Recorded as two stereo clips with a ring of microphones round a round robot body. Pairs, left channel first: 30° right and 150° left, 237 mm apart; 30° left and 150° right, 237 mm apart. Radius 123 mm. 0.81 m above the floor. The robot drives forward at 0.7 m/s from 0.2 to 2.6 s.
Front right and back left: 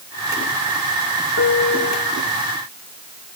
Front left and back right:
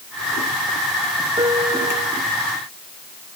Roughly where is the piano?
Right.